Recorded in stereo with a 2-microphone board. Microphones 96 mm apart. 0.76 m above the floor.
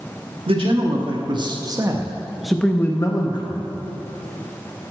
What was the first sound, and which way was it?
A man speaking, 65° right (ahead or behind).